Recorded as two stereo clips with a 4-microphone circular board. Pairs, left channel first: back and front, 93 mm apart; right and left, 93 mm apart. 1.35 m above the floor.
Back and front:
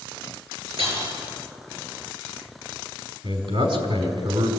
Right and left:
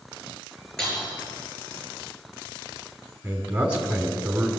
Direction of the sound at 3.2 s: 15° left.